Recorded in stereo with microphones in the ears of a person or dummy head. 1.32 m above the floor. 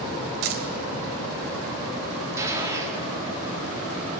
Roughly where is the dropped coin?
Right.